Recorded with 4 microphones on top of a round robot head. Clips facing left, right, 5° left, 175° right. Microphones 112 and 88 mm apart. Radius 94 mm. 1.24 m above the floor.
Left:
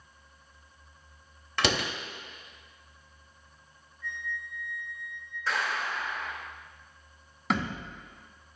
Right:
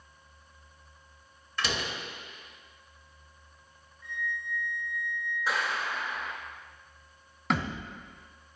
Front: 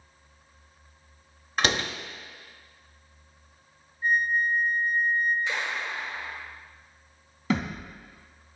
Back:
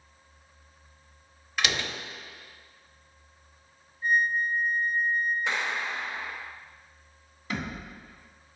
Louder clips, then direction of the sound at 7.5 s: Even, front 6 dB; straight ahead.